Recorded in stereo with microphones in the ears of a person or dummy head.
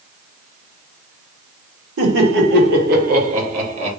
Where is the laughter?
75° right (ahead or behind), 1.8 m; by 3.9 s 35° right (ahead or behind), 1.7 m.